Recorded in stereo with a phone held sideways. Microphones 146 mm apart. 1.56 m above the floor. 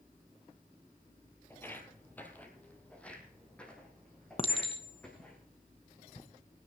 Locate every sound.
1.5 s footsteps: 15° left (ahead or behind), 1.8 m; by 5.4 s 5° left (ahead or behind), 5 m
4.4 s a clink: 40° left (ahead or behind), 0.9 m